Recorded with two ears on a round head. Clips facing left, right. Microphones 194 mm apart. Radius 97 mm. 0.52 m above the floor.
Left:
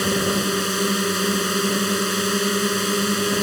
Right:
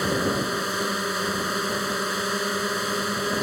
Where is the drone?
40° left (ahead or behind).